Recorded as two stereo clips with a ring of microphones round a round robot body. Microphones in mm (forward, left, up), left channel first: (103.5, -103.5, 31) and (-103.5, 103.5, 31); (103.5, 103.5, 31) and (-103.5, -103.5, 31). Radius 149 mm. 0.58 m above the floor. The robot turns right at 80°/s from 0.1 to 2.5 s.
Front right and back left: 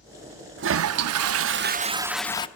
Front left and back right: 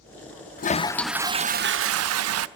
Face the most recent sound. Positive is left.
turn(degrees=-110)